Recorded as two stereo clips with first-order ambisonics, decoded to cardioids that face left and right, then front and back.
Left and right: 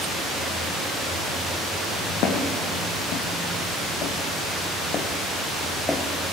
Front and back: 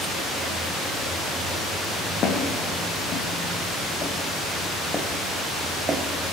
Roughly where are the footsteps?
Ahead left.